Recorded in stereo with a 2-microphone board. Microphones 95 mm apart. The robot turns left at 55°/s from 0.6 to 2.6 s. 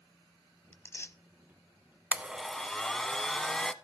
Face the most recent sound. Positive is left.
turn(degrees=5)  # may be behind; listen again after turning